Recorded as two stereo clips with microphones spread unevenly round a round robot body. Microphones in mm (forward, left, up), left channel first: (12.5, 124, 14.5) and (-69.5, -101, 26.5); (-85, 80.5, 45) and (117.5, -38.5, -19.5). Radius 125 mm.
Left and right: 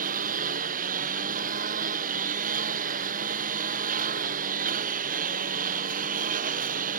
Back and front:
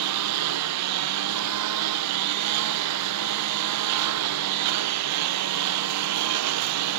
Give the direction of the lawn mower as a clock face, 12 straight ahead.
2 o'clock.